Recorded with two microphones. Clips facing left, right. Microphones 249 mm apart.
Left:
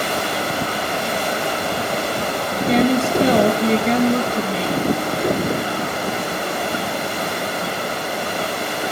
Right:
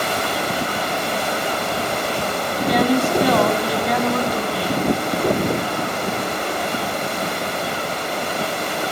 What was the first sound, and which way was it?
A woman speaking, 25° left (ahead or behind).